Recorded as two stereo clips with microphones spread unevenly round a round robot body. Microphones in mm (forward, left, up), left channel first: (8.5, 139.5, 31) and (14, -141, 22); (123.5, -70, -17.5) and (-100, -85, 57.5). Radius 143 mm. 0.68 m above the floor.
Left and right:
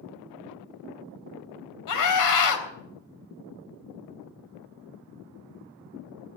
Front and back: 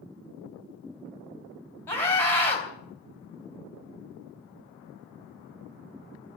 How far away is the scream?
About 3.5 m.